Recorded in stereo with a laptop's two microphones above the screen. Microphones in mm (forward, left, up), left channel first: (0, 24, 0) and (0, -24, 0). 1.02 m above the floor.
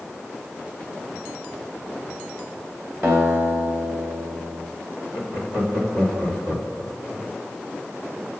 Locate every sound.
3.0 s a guitar: 50° right (ahead or behind), 2.5 m
5.1 s laughter: 80° right, 3 m